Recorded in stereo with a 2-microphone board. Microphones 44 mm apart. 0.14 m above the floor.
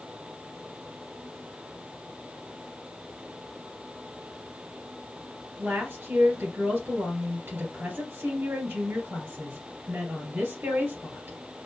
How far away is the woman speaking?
About 2.5 m.